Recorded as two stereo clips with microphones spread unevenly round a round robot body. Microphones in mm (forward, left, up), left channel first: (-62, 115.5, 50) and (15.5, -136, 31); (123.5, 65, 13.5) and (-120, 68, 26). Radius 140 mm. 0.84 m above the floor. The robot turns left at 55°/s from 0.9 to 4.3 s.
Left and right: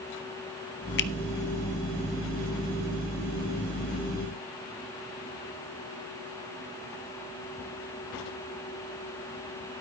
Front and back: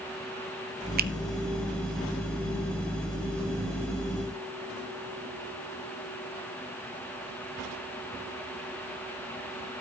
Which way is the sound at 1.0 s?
140° left.